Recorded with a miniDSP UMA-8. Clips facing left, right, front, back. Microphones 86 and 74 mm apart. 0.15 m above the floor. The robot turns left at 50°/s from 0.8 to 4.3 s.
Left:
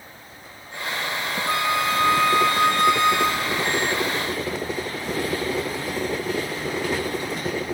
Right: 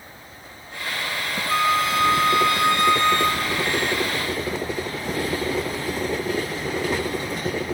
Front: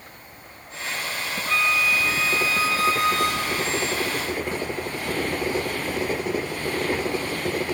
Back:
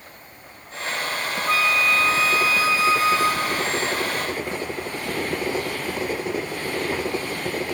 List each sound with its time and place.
1.5 s a flute: 100° left, 1.2 m; by 3.7 s 10° right, 1.2 m